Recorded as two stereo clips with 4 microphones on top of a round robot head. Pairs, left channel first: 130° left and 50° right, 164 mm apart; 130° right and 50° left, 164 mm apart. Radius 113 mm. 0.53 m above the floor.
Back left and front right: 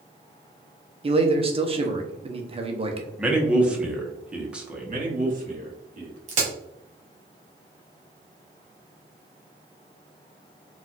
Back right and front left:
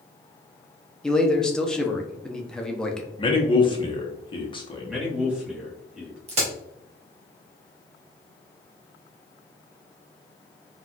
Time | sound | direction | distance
1.0 | a man speaking | 45° right | 0.7 m
3.2 | a man speaking | 125° right | 0.9 m
4.9 | a man speaking | 30° right | 1.5 m
6.3 | a crack | 5° right | 1.1 m